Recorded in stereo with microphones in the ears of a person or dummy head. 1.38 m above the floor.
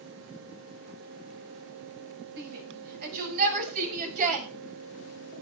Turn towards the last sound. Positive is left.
turn(degrees=-40)  # may be behind; listen again after turning